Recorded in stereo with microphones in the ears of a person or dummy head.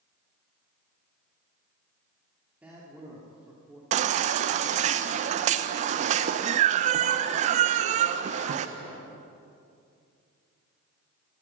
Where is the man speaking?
10° right (ahead or behind), 3 m.